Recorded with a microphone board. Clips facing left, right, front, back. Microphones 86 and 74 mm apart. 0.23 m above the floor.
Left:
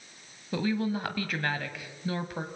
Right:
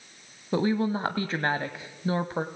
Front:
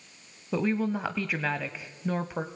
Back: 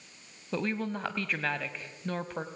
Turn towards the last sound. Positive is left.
turn(degrees=-75)